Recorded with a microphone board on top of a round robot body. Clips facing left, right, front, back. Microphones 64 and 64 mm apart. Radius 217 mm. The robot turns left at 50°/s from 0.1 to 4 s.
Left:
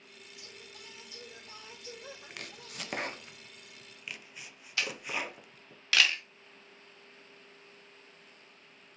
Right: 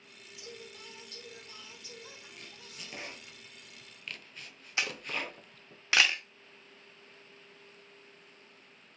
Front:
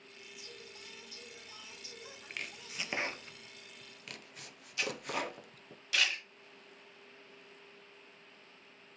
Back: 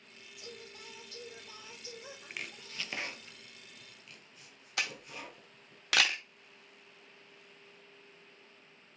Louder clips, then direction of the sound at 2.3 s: Left 4 dB, front 1 dB; 95° left.